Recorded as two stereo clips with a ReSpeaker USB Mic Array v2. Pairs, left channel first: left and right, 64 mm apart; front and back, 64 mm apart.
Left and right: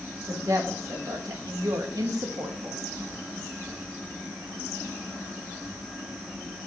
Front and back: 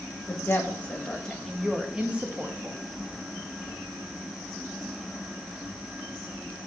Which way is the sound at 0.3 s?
50° right.